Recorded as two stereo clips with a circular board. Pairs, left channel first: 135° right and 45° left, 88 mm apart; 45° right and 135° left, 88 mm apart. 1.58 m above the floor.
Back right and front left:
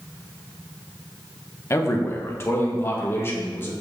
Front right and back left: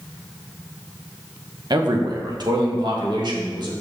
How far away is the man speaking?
About 1.4 m.